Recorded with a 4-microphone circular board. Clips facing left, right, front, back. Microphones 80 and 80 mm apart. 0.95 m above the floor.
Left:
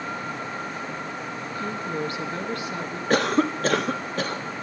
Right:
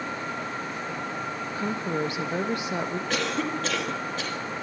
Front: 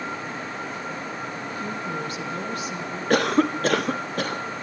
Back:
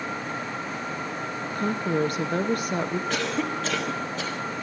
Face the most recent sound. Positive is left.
turn(degrees=40)